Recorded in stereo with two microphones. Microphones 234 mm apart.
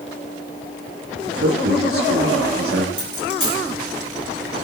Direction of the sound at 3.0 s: 75° left (ahead or behind).